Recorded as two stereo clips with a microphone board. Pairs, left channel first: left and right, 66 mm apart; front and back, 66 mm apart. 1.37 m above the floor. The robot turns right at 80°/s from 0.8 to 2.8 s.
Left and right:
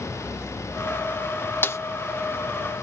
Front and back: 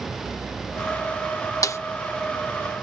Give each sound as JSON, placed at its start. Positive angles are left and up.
{"t": 1.6, "sound": "a snare drum", "azimuth_deg": 35}